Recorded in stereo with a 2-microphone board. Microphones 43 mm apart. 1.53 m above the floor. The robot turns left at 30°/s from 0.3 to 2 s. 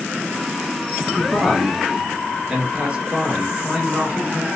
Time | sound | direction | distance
1.1 | a man speaking | 5° left (ahead or behind) | 1.5 m